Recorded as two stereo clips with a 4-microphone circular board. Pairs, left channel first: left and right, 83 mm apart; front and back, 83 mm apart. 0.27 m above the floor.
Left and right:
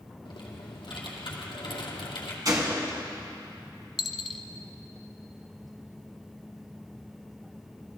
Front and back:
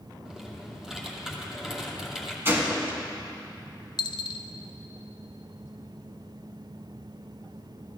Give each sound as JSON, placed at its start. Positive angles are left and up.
{"t": 0.2, "sound": "typing on a keyboard", "azimuth_deg": 95, "distance_m": 2.5}
{"t": 2.5, "sound": "a gunshot", "azimuth_deg": -120, "distance_m": 2.5}
{"t": 4.0, "sound": "a dropped coin", "azimuth_deg": 0, "distance_m": 0.9}